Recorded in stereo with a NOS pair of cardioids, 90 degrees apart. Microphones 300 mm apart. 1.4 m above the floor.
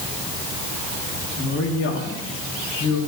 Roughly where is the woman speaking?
Ahead left.